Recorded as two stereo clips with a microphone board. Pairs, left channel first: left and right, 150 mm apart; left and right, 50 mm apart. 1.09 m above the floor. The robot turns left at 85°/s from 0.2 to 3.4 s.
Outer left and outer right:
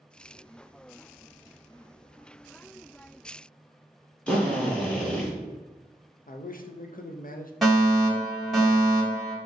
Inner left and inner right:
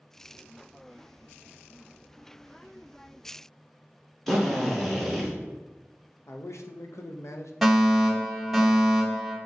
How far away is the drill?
About 1.3 m.